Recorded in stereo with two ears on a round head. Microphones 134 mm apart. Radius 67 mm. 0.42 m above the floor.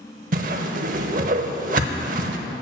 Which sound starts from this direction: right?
A whoosh, at 0.3 s.